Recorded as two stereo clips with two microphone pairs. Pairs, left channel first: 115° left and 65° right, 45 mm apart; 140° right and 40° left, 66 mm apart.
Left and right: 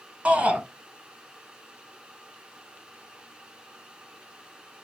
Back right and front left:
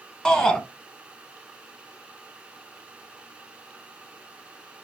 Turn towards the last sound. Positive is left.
turn(degrees=-75)